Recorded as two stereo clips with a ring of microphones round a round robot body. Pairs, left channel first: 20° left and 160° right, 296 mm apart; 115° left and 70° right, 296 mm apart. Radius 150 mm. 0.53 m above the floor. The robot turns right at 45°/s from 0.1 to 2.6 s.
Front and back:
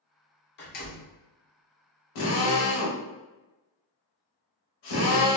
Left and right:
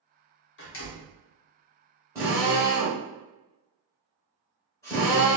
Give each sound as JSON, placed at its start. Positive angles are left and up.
{"t": 0.6, "sound": "a door slam", "azimuth_deg": 70, "distance_m": 1.0}
{"t": 2.1, "sound": "a drill", "azimuth_deg": 15, "distance_m": 1.2}